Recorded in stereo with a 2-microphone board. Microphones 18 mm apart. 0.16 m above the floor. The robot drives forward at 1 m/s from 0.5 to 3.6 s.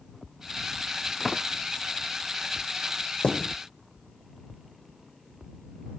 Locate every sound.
1.2 s a door slam: centre (ahead or behind)
3.2 s a thud: 80° left